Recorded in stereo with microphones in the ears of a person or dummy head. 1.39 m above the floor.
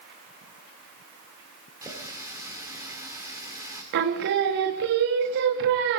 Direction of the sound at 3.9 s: 55° right (ahead or behind).